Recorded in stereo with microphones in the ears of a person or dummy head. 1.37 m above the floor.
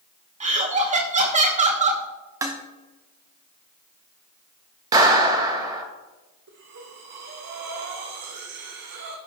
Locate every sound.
0.4 s laughter: 30° right (ahead or behind), 1.7 m
2.4 s dishes clattering: 5° right (ahead or behind), 0.6 m
4.9 s a clap: 25° right (ahead or behind), 1.5 m
6.5 s breathing: 45° right (ahead or behind), 1.3 m